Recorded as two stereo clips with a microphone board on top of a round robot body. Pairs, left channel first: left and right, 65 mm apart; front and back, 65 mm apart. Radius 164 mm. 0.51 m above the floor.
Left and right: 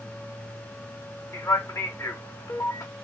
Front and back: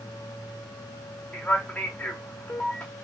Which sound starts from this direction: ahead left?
A man speaking, at 1.3 s.